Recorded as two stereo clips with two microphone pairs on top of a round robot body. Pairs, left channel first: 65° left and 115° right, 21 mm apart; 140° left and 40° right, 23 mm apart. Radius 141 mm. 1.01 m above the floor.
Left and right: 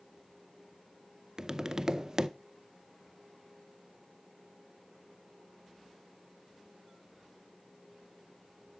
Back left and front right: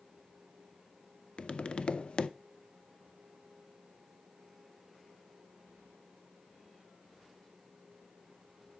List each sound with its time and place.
1.4 s tapping: 175° right, 0.6 m